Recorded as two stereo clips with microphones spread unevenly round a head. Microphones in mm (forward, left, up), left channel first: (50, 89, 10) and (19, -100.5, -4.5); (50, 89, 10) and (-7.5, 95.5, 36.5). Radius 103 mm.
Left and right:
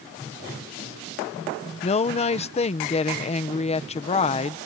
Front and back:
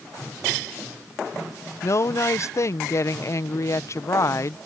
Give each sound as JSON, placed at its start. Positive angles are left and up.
{"t": 1.8, "sound": "a woman speaking", "azimuth_deg": 20}